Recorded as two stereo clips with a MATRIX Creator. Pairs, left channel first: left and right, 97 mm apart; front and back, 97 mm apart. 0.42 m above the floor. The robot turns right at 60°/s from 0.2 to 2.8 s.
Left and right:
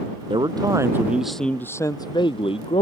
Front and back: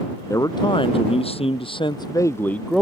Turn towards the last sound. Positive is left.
turn(degrees=90)